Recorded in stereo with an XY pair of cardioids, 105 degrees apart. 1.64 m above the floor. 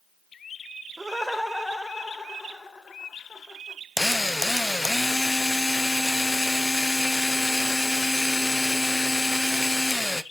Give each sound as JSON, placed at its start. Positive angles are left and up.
{"t": 1.0, "sound": "laughter", "azimuth_deg": -15, "distance_m": 0.8}
{"t": 4.0, "sound": "a drill", "azimuth_deg": 10, "distance_m": 0.8}